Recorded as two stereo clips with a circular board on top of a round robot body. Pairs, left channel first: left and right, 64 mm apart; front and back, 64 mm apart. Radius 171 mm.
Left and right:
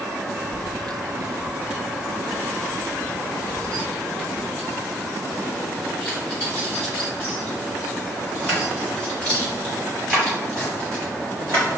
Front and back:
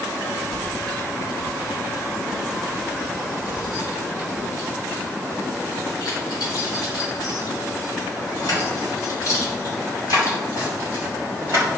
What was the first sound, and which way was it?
Keys jangling, 100° right.